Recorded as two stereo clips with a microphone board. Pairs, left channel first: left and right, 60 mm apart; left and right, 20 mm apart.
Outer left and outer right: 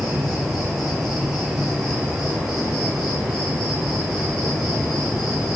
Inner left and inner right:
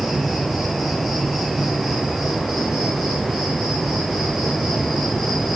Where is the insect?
Centre (ahead or behind), 3.5 m.